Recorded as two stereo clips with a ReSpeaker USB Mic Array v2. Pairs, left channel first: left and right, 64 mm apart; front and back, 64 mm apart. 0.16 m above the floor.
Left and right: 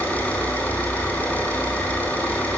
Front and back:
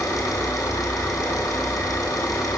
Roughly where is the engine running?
Ahead left.